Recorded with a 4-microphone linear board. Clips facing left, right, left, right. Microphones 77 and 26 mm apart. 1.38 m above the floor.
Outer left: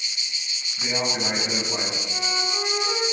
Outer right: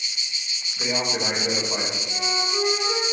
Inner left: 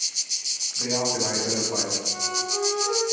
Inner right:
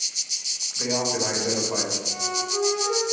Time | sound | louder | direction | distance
0.8 | a man speaking | outer right 1 dB, inner right 1 dB | 75° right (ahead or behind) | 5 m
2.1 | a flute | outer right 3 dB, even | 20° right (ahead or behind) | 5.5 m